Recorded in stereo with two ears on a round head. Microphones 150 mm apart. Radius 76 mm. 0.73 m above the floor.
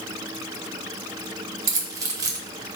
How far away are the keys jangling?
About 1.3 m.